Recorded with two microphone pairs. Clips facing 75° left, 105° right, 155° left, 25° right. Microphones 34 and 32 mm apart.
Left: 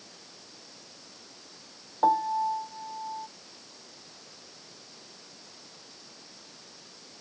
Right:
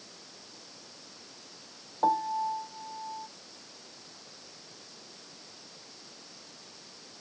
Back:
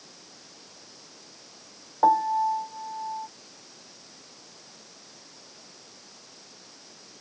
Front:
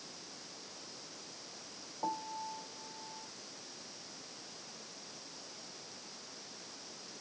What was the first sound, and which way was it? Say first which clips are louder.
A piano: left 3 dB, back 18 dB; 150° left.